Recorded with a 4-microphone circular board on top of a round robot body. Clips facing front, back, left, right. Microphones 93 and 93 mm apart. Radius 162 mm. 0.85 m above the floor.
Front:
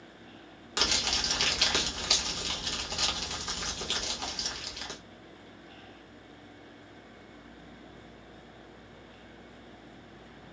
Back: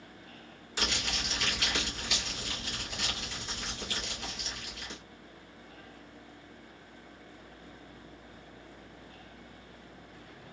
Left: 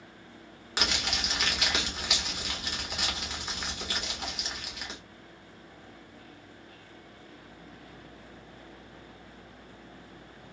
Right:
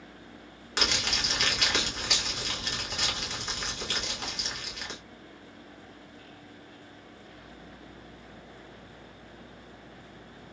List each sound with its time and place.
0.8 s crumpling: 10° left, 1.4 m